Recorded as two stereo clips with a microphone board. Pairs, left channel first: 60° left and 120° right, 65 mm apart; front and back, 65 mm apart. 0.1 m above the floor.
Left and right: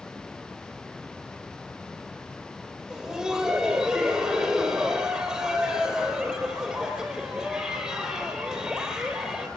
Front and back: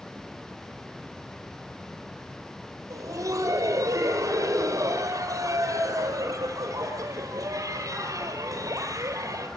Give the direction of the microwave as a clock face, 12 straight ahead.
No microwave in this recording.